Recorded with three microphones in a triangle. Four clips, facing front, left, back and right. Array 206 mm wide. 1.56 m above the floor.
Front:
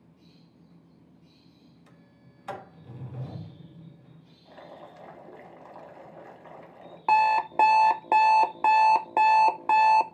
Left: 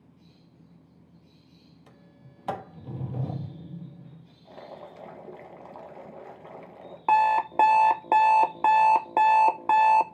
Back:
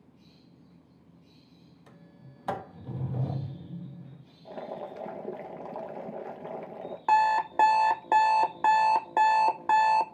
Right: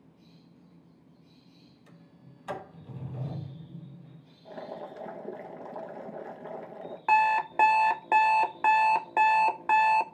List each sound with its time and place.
1.9 s a sliding door: 120° left, 1.5 m
4.5 s boiling: 165° right, 1.7 m
7.1 s an alarm clock: 70° left, 0.6 m